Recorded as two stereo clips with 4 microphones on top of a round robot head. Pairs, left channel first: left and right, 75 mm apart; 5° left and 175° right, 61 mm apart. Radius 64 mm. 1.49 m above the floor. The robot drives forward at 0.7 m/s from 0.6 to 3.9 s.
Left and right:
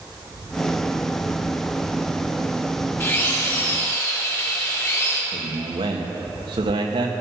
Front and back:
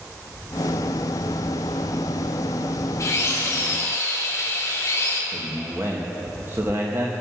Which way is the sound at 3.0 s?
35° left.